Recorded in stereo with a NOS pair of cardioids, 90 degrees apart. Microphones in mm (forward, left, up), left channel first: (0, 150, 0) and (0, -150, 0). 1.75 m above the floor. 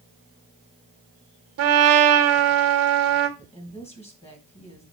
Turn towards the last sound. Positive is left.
turn(degrees=20)